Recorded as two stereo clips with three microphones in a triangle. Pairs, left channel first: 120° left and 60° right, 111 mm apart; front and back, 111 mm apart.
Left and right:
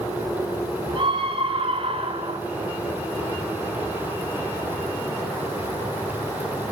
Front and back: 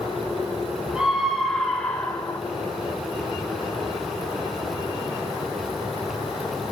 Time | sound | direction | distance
0.9 | a scream | 100° right | 2.5 m